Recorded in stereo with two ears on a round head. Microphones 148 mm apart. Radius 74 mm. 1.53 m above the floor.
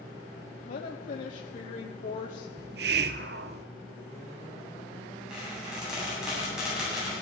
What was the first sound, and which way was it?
A woman speaking, 50° left (ahead or behind).